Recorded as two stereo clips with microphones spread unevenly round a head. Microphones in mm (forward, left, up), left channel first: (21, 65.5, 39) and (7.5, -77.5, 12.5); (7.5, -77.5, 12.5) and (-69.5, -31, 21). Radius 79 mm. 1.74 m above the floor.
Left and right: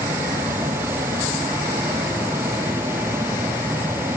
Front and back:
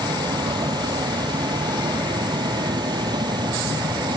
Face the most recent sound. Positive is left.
turn(degrees=-175)